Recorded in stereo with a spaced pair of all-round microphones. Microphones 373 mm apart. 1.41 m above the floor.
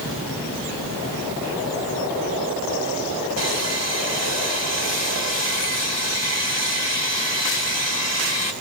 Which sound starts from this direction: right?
Sawing, at 3.4 s.